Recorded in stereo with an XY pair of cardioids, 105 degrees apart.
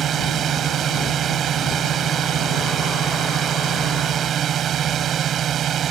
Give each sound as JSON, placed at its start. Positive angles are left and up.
{"t": 0.0, "sound": "a drone", "azimuth_deg": -60}